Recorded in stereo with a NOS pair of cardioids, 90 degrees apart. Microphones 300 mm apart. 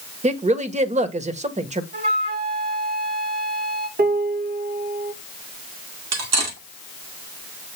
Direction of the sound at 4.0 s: 30° right.